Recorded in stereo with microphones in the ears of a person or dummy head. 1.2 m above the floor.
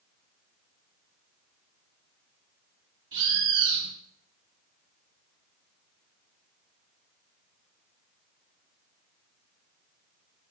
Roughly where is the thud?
No thud in this recording.